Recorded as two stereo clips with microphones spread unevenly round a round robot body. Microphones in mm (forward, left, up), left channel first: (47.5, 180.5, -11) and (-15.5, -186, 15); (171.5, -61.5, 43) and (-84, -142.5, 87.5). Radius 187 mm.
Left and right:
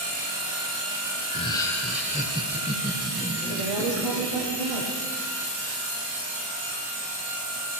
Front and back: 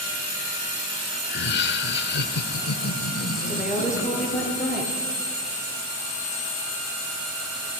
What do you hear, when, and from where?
1.2 s laughter: 20° left, 1.5 m; by 4.5 s 40° right, 4 m
3.5 s a woman speaking: 75° right, 7.5 m